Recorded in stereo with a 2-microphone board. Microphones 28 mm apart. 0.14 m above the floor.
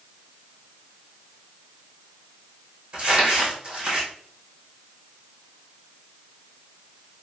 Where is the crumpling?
45° right (ahead or behind), 2.5 m.